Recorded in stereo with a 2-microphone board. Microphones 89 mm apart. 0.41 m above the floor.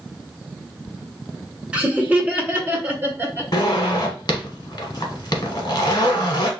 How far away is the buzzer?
No buzzer in this recording.